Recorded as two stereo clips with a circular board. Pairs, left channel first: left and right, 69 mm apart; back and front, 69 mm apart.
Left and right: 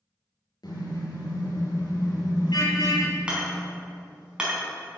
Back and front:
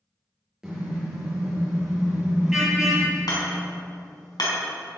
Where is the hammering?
165° right, 5 m.